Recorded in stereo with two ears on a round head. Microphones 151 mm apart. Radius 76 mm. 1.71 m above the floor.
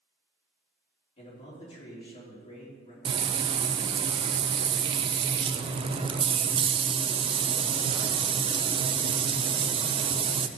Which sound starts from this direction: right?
Frying, at 3.0 s.